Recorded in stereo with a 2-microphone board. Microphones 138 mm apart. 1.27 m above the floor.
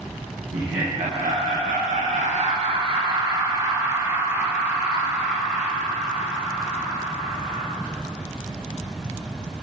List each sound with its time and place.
0.5 s laughter: 55° right (ahead or behind), 1.4 m; by 7.7 s centre (ahead or behind), 4 m